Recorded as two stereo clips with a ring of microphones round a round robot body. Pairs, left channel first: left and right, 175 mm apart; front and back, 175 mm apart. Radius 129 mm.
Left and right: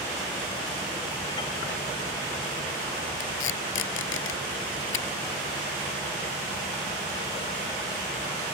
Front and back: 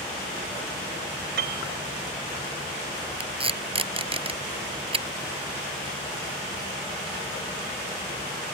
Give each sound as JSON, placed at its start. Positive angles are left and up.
{"t": 1.4, "sound": "a piano", "azimuth_deg": 165}
{"t": 3.2, "sound": "tape being pulled", "azimuth_deg": 120}